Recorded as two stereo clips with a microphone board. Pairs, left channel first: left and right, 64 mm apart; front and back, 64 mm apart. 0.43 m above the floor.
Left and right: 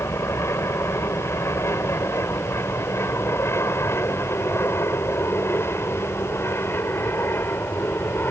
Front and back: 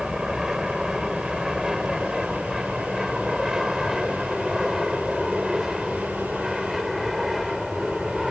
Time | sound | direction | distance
0.0 | an aircraft | 100° left | ?